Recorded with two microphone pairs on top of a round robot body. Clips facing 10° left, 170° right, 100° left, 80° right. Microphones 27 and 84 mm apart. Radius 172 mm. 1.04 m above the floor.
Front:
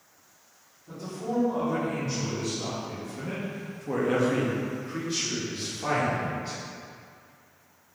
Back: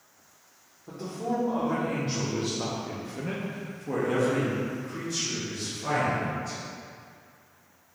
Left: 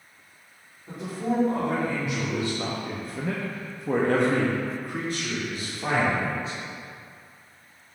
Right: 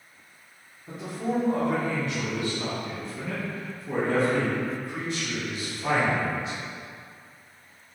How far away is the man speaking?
About 1.7 m.